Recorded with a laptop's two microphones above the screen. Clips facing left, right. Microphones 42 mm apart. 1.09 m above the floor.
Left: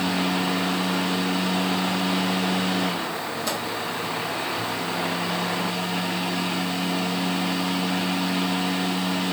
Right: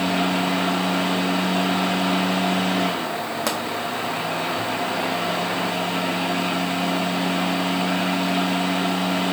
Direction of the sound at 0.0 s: 45° right (ahead or behind).